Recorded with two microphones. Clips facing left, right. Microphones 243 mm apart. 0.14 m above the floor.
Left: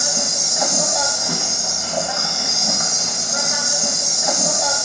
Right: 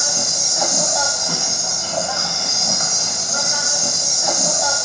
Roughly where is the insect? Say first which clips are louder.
Left 1 dB; centre.